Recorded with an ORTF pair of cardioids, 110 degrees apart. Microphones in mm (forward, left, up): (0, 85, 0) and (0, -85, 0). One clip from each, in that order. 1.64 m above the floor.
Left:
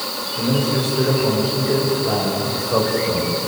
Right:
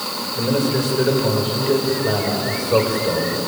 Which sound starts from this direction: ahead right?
A man speaking, at 0.4 s.